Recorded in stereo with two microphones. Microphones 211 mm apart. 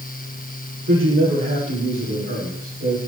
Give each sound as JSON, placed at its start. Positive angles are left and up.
{"t": 0.9, "sound": "a man speaking", "side_deg": -65, "distance_m": 7.5}